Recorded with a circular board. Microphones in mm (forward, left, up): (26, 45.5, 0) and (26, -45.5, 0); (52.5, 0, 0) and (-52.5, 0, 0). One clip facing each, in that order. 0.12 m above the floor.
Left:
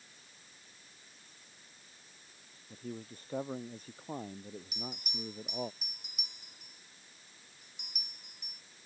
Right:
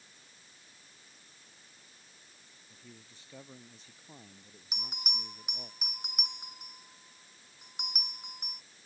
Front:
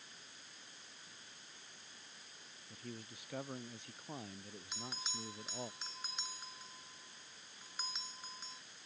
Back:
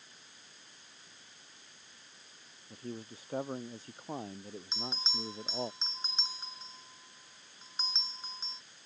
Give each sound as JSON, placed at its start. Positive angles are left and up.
{"t": 2.7, "sound": "a man speaking", "azimuth_deg": 130}
{"t": 4.7, "sound": "a bell", "azimuth_deg": -115}